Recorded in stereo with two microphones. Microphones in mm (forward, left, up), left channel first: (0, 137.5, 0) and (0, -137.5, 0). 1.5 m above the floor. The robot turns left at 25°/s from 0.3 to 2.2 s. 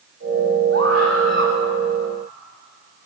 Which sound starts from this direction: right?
A scream, at 0.7 s.